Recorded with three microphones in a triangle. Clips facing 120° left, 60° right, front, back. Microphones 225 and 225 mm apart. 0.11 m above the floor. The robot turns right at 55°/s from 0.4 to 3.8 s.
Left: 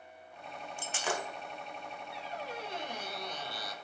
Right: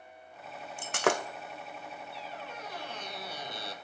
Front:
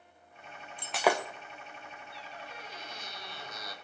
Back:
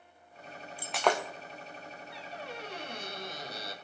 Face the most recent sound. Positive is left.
turn(degrees=-115)